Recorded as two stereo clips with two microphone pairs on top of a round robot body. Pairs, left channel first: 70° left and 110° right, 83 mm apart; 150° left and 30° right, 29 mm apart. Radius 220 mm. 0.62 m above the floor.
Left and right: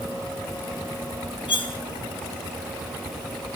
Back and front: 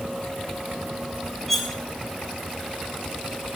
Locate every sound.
1.5 s cutlery clinking: 55° left, 3 m